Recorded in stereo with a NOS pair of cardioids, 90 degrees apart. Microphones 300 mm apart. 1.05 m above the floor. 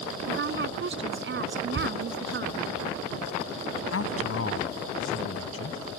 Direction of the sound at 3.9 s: 45° left.